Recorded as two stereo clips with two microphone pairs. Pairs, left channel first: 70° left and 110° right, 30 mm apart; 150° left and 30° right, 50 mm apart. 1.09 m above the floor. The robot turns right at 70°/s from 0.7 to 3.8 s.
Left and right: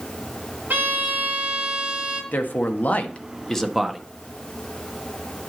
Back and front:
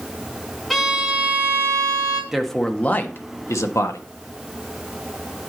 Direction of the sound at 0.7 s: 115° right.